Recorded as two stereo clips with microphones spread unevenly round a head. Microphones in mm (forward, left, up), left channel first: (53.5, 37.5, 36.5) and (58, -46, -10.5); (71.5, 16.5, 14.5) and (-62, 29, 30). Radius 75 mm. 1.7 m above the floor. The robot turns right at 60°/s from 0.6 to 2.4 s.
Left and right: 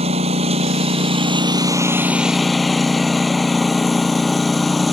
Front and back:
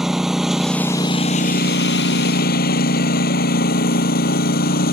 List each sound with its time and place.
0.0 s a lawn mower: 100° right; by 4.9 s 10° left